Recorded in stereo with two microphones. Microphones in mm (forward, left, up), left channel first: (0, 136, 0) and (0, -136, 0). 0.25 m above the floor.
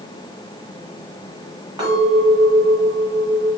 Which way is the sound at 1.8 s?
15° right (ahead or behind).